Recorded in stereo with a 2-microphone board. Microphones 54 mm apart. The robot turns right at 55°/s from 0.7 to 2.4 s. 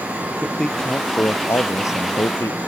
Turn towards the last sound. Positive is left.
turn(degrees=110)